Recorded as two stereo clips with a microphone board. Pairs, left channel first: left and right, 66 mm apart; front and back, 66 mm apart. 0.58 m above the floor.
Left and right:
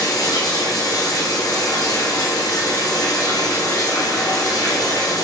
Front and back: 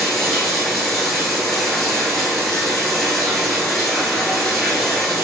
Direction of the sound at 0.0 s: 85° left.